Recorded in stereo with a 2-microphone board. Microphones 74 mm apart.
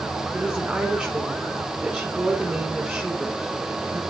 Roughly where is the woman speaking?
Centre.